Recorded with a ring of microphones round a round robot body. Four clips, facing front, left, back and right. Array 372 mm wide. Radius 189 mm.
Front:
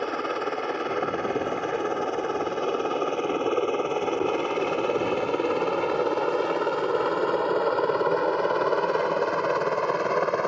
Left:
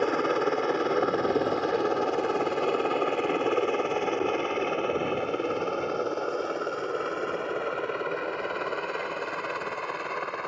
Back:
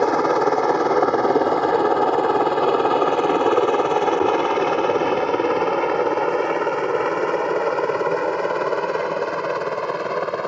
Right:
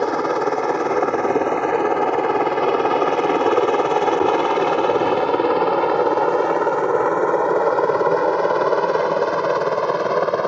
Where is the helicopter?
150° right; by 10.5 s 85° right.